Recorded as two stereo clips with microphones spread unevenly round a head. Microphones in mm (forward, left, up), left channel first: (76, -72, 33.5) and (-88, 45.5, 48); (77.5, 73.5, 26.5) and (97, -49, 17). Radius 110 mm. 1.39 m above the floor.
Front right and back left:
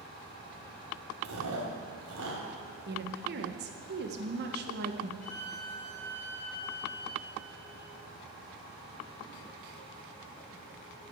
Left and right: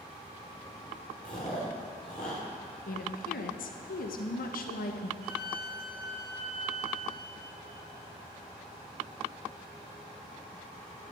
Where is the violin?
90° right, 5 m.